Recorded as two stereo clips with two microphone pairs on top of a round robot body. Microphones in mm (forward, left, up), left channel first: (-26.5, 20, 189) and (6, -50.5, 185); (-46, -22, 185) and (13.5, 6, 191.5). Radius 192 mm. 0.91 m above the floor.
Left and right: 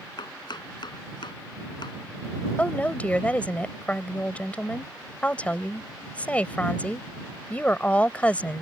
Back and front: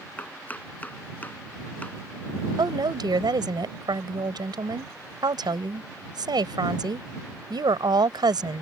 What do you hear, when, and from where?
0.2 s chopping: 140° left
2.6 s a woman speaking: 40° left